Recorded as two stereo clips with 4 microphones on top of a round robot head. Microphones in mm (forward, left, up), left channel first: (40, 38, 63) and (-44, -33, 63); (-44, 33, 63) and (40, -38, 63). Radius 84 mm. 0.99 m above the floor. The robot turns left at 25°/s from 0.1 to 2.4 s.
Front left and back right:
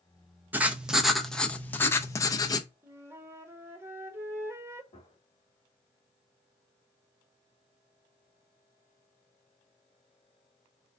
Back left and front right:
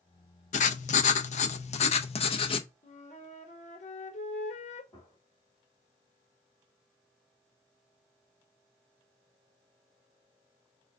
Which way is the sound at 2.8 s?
150° left.